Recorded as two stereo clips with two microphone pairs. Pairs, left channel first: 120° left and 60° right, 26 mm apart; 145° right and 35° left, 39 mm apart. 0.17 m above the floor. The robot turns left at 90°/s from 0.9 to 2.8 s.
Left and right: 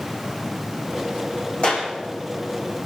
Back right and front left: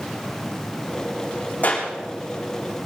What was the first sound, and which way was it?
A clap, 165° left.